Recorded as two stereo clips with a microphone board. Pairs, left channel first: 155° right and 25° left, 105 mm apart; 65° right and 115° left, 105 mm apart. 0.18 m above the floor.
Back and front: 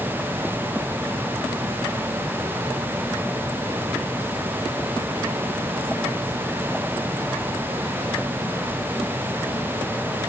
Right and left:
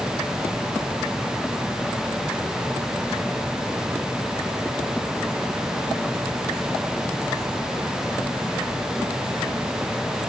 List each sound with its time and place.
Only background noise.